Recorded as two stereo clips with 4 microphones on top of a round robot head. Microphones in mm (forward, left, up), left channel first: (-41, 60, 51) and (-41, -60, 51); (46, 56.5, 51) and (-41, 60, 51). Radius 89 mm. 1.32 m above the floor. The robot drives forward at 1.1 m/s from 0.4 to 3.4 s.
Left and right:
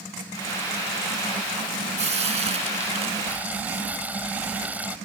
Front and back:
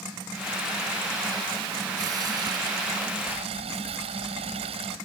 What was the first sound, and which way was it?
Frying, 120° right.